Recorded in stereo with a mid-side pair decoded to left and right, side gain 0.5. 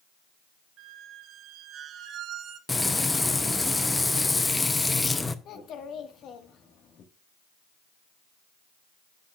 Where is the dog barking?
No dog barking in this recording.